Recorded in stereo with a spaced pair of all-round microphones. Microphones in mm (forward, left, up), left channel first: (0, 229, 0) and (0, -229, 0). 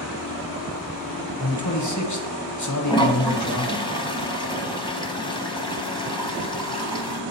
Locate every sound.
1.4 s a man speaking: 40° left (ahead or behind), 1.1 m
2.9 s a toilet flushing: 10° left (ahead or behind), 0.7 m